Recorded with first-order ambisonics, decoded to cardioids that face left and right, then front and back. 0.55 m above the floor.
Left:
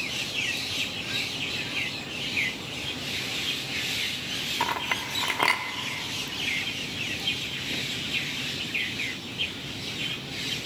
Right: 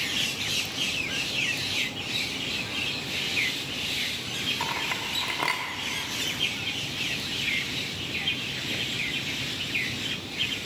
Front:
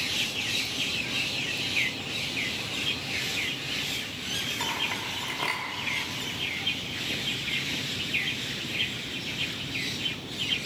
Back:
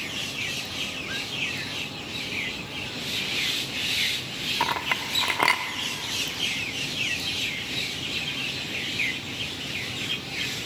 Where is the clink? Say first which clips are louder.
Left 1 dB, back 4 dB; 155° left, 0.7 m.